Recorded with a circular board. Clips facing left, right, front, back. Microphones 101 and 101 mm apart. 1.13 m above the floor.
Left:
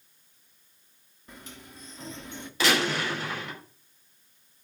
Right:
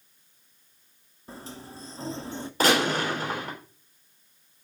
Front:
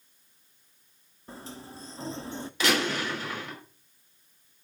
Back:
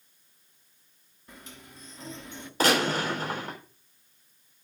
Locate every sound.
1.3 s a sliding door: 45° right, 0.8 m
2.6 s a gunshot: 135° right, 5.5 m